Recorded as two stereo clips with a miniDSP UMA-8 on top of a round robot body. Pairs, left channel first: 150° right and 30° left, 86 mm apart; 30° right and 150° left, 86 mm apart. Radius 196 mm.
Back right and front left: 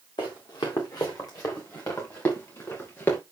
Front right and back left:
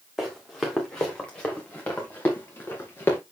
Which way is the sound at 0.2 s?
120° right.